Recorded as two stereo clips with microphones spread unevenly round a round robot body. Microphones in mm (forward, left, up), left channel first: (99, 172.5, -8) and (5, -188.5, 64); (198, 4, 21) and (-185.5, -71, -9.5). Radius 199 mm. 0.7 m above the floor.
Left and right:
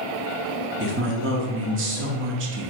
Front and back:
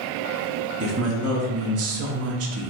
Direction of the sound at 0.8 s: 160° right.